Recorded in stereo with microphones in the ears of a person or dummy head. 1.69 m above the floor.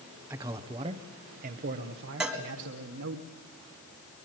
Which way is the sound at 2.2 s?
5° right (ahead or behind).